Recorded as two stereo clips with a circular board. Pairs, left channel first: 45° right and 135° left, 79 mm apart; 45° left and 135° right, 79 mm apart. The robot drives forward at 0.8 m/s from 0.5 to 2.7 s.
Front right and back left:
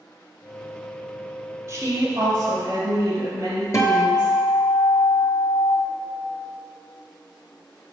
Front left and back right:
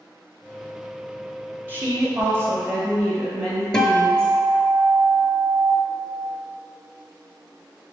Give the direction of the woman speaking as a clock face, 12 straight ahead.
6 o'clock.